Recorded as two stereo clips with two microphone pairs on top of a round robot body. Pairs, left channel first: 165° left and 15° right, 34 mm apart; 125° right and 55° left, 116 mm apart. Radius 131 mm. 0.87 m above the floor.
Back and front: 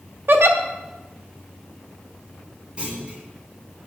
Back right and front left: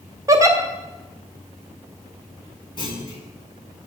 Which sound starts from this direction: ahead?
A giggle, at 0.3 s.